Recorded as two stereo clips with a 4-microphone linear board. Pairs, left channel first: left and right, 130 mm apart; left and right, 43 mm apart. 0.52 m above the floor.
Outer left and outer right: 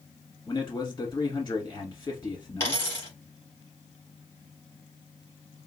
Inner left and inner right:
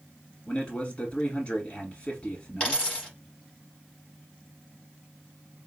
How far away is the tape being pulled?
I don't hear tape being pulled.